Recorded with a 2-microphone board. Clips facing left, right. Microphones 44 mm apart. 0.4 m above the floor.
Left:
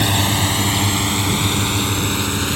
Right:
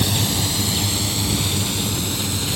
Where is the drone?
40° left (ahead or behind); by 2.6 s 45° left (ahead or behind).